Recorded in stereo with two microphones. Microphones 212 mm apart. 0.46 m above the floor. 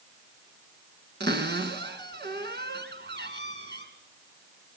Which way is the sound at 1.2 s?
55° right (ahead or behind).